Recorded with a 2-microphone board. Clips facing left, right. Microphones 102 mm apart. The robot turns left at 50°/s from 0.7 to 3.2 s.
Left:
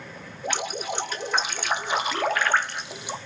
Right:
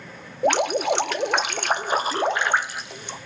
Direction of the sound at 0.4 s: 70° right.